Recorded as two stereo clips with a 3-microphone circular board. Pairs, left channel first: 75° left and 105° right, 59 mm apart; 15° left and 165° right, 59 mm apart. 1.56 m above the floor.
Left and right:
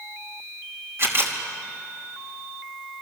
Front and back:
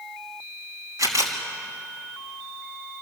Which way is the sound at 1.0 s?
145° right.